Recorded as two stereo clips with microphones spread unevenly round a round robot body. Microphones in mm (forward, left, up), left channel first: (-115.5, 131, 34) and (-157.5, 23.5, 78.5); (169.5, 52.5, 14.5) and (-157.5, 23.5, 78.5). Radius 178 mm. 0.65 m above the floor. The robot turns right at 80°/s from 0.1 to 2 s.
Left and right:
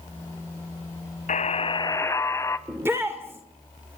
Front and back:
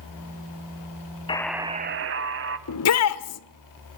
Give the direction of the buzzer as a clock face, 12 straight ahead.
9 o'clock.